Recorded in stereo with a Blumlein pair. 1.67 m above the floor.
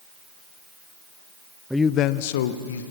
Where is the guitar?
I don't hear a guitar.